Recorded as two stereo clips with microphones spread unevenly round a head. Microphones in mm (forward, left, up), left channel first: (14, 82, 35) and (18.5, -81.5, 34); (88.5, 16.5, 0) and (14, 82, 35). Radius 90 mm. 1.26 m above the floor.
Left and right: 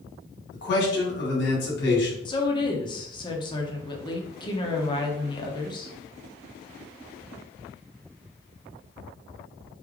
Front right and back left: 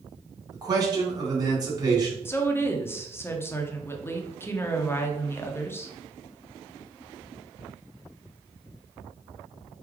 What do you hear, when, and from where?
0.5 s a man speaking: 85° left, 1.9 m
2.2 s a woman speaking: 30° left, 0.9 m